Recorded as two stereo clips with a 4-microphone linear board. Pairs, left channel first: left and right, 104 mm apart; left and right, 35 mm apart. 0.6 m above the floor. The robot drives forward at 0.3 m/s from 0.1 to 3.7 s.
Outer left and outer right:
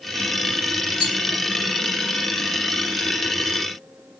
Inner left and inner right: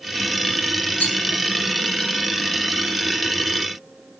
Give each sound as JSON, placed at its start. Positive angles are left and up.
{"t": 1.0, "sound": "a rattle", "side_deg": 65, "distance_m": 3.0}